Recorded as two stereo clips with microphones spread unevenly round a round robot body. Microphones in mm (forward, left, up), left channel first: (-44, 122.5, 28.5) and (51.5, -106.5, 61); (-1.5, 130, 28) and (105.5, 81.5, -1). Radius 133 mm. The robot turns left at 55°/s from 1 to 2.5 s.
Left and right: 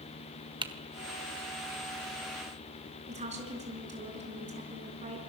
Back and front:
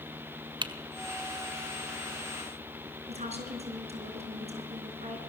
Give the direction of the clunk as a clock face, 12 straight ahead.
I don't hear a clunk.